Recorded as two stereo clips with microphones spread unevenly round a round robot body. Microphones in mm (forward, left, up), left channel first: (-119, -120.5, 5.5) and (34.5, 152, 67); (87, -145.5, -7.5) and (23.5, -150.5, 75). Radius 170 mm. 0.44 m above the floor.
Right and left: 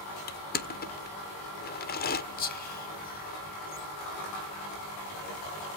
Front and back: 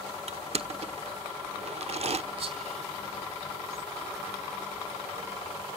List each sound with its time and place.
0.3 s crushing: 135° right, 1.5 m
2.4 s whispering: 175° right, 2.5 m